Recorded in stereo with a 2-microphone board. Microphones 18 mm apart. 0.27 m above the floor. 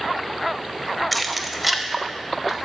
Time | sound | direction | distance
1.1 | keys jangling | 5° left (ahead or behind) | 0.7 m